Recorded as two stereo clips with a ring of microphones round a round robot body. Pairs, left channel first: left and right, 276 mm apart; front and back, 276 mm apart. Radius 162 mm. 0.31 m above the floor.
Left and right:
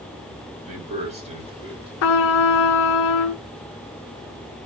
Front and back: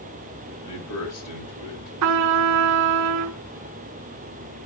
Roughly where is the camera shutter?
No camera shutter in this recording.